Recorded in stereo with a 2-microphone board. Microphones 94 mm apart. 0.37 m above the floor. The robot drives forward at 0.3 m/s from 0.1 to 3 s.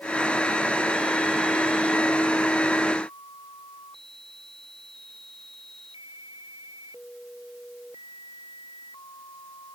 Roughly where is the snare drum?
No snare drum in this recording.